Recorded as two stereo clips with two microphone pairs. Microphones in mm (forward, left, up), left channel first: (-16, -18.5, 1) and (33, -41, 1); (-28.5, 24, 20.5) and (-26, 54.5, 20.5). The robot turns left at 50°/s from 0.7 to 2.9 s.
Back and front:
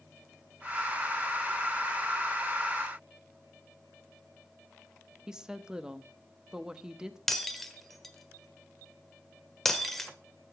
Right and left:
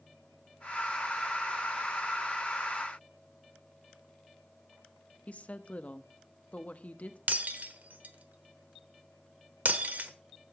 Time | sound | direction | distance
5.3 | a woman speaking | 100° right | 0.9 m
7.3 | breaking glass | 70° left | 1.1 m